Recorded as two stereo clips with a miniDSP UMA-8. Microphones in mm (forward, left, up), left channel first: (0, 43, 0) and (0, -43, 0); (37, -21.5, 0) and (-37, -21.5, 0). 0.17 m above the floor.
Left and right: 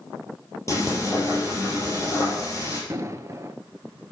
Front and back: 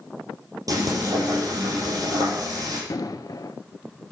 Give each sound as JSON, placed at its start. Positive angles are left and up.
{"t": 0.7, "sound": "frying", "azimuth_deg": 145, "distance_m": 5.5}
{"t": 2.9, "sound": "an explosion", "azimuth_deg": -35, "distance_m": 0.7}